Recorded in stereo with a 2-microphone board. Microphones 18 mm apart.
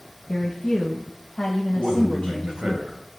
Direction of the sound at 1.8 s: 35° right (ahead or behind).